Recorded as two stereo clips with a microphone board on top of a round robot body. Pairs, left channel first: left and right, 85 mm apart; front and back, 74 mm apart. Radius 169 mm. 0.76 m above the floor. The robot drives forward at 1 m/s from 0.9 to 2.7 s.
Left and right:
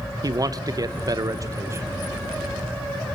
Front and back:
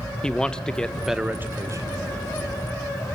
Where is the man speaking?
75° right, 0.9 m; by 1.9 s 145° right, 1.2 m.